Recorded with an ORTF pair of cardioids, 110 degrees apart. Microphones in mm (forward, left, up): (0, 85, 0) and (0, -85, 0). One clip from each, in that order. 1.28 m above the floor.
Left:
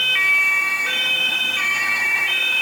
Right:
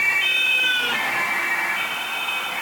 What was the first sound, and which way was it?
Only background noise.